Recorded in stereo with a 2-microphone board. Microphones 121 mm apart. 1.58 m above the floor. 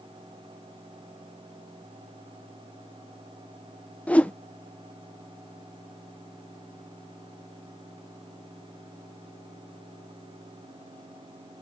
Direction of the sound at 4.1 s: 10° left (ahead or behind).